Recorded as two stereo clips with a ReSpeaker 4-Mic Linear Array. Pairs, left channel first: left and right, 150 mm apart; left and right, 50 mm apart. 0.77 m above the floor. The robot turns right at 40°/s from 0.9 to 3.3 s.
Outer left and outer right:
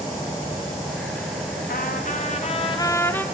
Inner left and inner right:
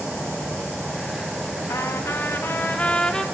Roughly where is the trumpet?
Left.